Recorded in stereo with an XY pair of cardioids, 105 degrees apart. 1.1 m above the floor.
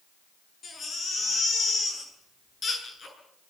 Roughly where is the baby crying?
Ahead left.